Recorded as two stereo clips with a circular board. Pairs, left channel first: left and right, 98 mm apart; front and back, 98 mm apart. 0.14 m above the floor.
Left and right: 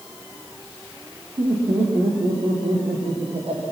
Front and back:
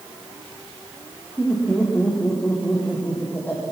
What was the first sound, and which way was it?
Laughter, 85° right.